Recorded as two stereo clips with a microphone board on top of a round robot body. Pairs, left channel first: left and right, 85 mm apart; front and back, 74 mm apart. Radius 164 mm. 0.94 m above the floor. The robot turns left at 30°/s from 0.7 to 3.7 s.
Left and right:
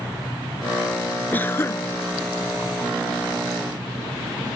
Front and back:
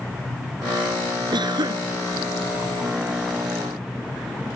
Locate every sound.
1.3 s a cough: 160° left; by 1.9 s 145° left